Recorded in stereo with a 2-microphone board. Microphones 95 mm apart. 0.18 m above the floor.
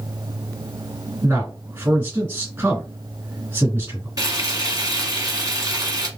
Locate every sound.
1.2 s a man speaking: 25° right (ahead or behind), 2.5 m
4.2 s frying: 40° right (ahead or behind), 1.5 m